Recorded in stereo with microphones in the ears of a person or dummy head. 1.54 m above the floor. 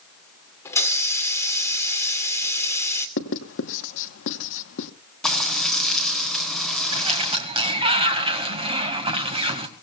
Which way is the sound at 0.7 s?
15° left (ahead or behind).